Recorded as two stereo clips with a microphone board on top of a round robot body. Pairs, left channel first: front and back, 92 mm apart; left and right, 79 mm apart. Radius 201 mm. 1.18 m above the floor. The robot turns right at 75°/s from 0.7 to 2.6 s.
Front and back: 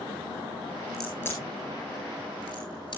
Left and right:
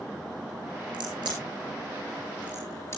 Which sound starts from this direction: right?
A crack, at 0.9 s.